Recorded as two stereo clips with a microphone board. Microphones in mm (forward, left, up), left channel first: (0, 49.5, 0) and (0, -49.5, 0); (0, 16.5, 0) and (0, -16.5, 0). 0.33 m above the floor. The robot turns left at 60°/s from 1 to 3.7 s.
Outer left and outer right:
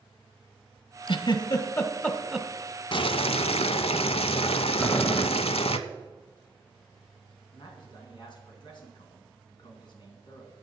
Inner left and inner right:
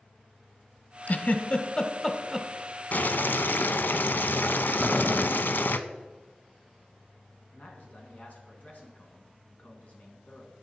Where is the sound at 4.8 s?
20° left (ahead or behind), 0.7 m.